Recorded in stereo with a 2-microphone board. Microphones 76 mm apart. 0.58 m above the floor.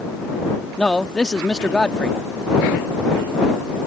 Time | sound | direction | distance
0.8 | a man speaking | 10° left (ahead or behind) | ?